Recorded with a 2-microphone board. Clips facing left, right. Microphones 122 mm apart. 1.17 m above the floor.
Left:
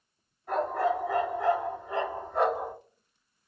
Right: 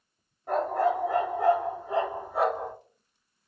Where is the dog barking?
65° right (ahead or behind), 2 m; by 2.7 s 15° left (ahead or behind), 0.9 m.